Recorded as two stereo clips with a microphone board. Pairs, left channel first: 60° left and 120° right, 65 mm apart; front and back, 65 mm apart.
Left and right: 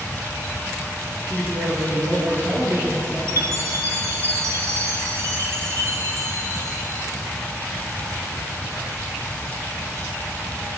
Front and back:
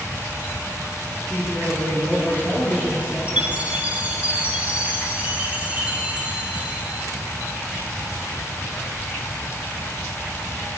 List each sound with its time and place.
1.2 s a woman speaking: 75° right, 7 m; by 3.2 s 65° right, 7.5 m
3.3 s a chime: 120° right, 1.7 m